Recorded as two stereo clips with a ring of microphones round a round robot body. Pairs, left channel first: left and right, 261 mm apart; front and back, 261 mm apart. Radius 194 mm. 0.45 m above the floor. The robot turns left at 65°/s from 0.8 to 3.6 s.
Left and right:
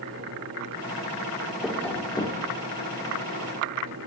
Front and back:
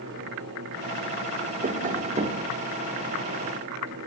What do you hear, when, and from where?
1.6 s tapping: 175° right, 1.3 m; by 2.5 s 125° left, 1.3 m